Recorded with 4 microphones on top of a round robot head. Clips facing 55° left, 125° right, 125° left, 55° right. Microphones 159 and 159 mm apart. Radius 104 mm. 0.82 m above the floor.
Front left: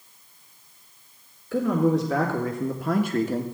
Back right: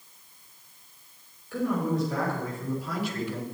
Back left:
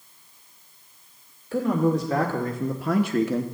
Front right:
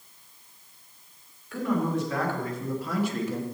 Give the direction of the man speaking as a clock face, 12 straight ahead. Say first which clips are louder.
Front left 6 dB, back left 5 dB; 10 o'clock.